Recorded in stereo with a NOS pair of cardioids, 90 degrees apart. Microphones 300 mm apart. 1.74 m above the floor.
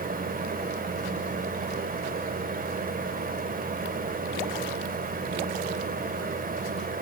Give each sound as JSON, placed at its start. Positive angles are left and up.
{"t": 0.0, "sound": "a fan", "azimuth_deg": -30, "distance_m": 1.8}